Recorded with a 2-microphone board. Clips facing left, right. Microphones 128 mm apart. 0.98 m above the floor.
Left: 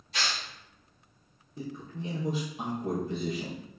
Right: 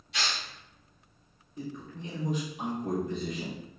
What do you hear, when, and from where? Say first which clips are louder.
0.1 s tearing paper: even; 40° left (ahead or behind), 1.7 m
1.6 s a man speaking: left 1 dB; 30° left (ahead or behind), 0.8 m